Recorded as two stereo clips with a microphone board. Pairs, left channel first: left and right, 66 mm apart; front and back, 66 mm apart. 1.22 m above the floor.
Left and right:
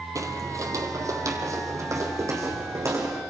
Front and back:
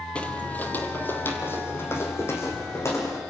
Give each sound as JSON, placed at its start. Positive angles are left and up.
{"t": 0.1, "sound": "footsteps", "azimuth_deg": -70, "distance_m": 2.0}